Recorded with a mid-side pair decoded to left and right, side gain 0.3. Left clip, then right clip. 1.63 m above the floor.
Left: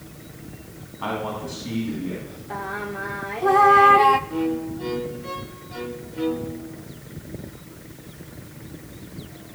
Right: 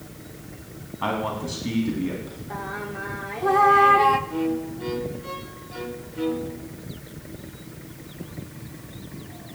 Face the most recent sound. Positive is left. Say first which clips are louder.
# left 1 dB
turn(degrees=15)